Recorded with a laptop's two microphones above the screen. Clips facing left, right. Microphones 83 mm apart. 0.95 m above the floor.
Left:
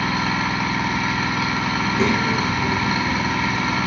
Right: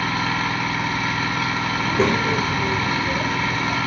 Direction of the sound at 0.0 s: 5° left (ahead or behind).